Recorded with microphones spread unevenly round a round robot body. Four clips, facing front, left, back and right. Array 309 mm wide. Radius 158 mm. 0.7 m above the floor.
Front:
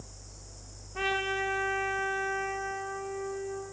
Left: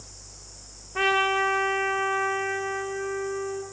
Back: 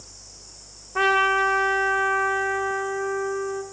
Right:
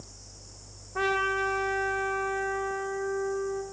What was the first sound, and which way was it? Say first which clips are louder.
A trumpet: left 4 dB, back 11 dB; 160° left.